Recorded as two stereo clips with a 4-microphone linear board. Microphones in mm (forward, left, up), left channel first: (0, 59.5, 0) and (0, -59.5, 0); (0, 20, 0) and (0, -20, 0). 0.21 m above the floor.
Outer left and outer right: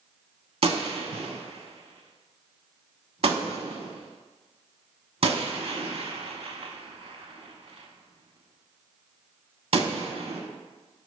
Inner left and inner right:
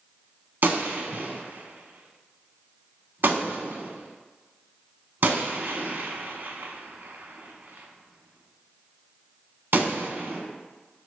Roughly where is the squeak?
No squeak in this recording.